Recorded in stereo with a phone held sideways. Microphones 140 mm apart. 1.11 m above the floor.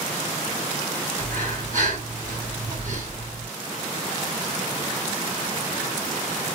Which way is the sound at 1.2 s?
65° right (ahead or behind).